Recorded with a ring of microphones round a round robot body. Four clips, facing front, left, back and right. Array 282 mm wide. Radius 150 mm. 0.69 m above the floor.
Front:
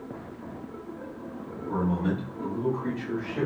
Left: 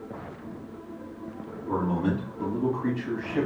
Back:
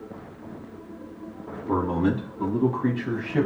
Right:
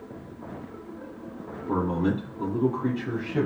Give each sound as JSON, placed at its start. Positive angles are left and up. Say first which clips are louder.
{"t": 1.7, "sound": "a man speaking", "louder": "right 1 dB, back 4 dB", "azimuth_deg": -175, "distance_m": 6.5}